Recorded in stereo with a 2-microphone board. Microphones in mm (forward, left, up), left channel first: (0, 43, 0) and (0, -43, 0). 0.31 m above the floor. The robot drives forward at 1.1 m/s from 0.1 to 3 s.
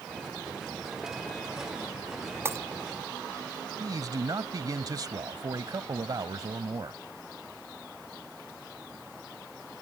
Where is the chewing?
No chewing in this recording.